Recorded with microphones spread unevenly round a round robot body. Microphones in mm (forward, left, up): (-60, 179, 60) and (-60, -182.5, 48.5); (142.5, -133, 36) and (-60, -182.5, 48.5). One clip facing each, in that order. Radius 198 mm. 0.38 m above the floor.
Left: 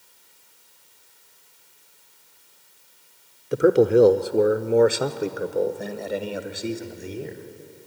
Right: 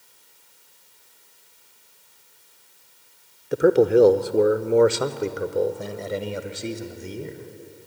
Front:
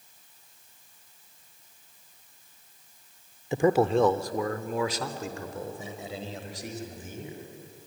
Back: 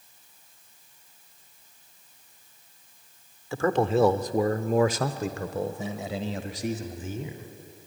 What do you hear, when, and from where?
3.5 s a man speaking: straight ahead, 0.8 m; by 7.5 s 175° right, 2.5 m